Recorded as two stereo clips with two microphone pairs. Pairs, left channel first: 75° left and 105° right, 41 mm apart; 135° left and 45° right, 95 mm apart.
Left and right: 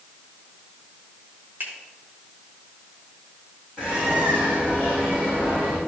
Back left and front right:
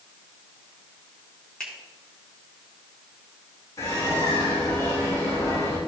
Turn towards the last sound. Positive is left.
turn(degrees=-170)